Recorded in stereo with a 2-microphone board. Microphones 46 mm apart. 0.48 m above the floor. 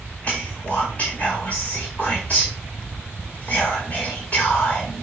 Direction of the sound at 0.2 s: 30° left (ahead or behind).